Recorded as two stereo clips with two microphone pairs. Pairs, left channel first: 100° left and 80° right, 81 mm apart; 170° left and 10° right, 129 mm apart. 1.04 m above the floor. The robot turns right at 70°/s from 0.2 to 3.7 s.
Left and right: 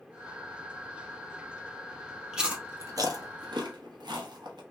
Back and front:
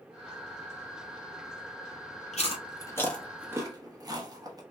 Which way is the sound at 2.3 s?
165° right.